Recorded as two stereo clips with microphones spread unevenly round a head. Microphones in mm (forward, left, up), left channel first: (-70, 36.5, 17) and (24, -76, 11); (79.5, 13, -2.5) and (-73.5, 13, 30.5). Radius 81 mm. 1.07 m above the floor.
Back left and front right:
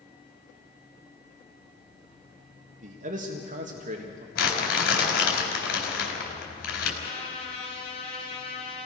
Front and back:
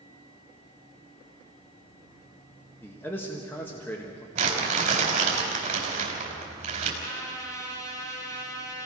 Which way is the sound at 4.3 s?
135° left.